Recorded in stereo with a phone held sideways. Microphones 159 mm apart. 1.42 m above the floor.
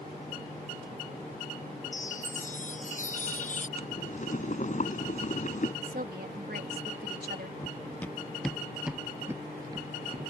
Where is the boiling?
50° left (ahead or behind).